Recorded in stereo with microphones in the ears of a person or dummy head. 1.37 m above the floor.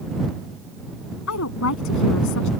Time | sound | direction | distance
1.3 | a woman speaking | 80° left | ?